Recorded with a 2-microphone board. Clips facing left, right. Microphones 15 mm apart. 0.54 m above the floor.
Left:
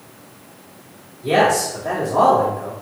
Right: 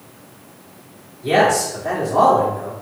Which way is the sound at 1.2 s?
20° right (ahead or behind).